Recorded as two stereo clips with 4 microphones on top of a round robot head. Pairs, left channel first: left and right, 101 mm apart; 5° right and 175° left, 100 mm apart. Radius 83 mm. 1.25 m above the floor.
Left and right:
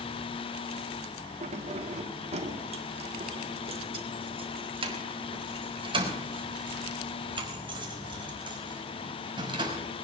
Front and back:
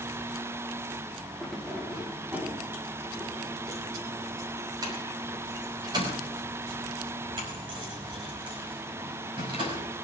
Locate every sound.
1.4 s keys jangling: 95° right, 1.6 m; by 9.8 s 130° right, 5.5 m